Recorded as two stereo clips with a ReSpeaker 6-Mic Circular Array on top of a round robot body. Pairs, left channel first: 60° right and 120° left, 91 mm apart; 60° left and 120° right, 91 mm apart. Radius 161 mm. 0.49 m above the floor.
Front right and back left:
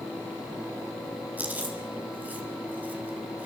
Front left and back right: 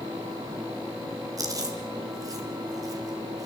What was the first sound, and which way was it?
Chewing, 170° right.